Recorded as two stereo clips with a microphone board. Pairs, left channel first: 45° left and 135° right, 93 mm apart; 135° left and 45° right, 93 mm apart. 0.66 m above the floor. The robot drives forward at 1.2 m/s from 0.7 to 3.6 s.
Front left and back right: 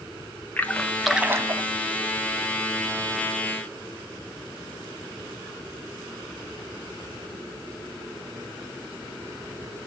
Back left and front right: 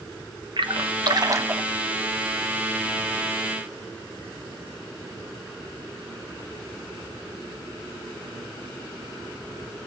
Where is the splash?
30° right, 1.0 m; by 1.6 s 120° right, 0.7 m.